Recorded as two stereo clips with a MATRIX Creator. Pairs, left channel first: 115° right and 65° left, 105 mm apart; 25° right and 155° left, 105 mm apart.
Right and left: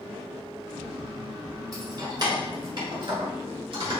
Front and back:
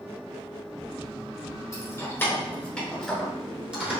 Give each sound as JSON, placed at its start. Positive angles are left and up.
{"t": 1.7, "sound": "keys jangling", "azimuth_deg": 25, "distance_m": 1.4}